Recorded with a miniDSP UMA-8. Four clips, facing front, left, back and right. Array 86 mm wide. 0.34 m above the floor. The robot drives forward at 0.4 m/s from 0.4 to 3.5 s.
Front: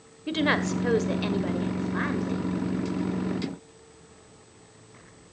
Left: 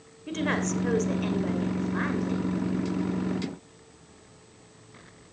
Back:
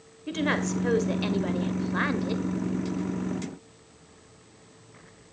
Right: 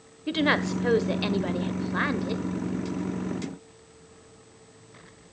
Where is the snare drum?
No snare drum in this recording.